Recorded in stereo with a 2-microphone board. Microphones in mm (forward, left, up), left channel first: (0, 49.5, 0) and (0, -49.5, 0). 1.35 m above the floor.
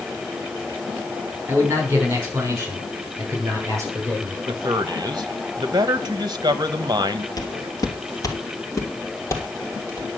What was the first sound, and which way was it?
A man speaking, 25° right (ahead or behind).